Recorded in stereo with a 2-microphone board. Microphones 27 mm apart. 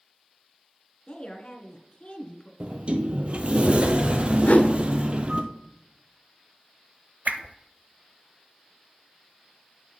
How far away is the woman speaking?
About 1.6 m.